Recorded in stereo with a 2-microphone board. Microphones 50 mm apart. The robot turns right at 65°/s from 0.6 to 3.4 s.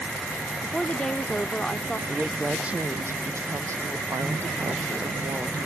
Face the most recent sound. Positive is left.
turn(degrees=-110)